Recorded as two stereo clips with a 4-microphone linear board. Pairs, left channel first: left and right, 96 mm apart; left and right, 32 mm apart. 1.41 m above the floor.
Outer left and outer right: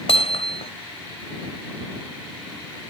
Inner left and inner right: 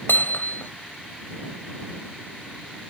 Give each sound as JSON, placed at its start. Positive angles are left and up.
{"t": 0.1, "sound": "hammering", "side_deg": 80}